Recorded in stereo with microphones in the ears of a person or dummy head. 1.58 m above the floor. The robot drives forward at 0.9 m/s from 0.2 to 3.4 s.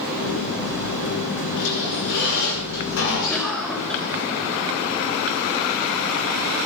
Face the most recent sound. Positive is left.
turn(degrees=0)  # may be behind; listen again after turning